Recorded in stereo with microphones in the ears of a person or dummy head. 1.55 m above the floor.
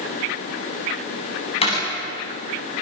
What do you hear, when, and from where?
1.6 s a door slam: 35° left (ahead or behind), 9 m